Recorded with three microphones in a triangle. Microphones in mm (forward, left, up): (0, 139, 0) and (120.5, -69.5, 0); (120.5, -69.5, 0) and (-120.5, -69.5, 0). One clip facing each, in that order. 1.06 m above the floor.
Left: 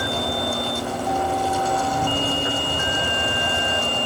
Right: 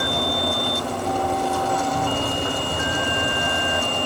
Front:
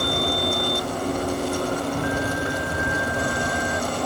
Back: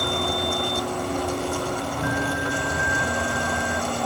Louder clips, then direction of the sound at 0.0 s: Right 1 dB, front 2 dB; 45° left.